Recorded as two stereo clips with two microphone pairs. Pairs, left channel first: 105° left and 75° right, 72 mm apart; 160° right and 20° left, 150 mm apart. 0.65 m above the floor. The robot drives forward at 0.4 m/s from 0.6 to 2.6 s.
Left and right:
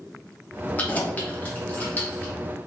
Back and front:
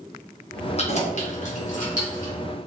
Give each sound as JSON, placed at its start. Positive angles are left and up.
{"t": 0.8, "sound": "keys jangling", "azimuth_deg": 170, "distance_m": 0.7}